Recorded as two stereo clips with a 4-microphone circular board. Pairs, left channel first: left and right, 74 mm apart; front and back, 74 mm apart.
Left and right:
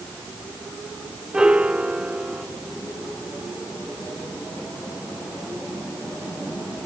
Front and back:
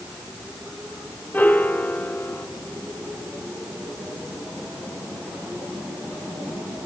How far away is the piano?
About 0.9 m.